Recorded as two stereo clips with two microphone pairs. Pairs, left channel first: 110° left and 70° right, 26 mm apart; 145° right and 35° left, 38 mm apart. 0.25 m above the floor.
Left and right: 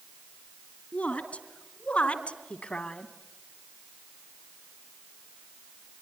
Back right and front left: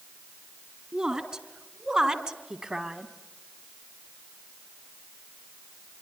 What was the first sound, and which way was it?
A woman speaking, 100° left.